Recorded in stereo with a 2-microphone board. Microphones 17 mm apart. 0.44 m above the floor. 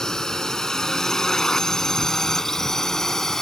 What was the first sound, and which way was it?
A drone, 40° left (ahead or behind).